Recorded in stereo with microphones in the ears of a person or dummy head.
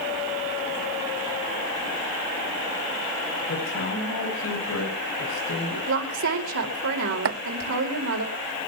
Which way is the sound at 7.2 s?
70° right (ahead or behind).